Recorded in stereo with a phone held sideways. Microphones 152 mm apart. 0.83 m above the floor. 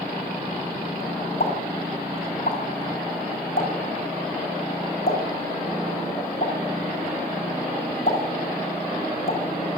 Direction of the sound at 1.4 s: 70° left (ahead or behind).